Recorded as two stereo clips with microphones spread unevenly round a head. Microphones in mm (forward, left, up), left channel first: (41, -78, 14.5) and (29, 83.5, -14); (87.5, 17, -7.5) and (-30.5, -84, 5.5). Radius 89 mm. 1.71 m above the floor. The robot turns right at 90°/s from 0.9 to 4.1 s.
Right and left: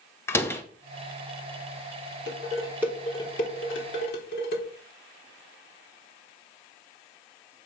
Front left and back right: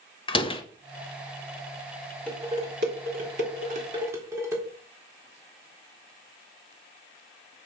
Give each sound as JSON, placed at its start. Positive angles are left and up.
{"t": 0.3, "sound": "a door slam", "azimuth_deg": -15, "distance_m": 1.6}
{"t": 2.3, "sound": "dishes clattering", "azimuth_deg": 125, "distance_m": 4.0}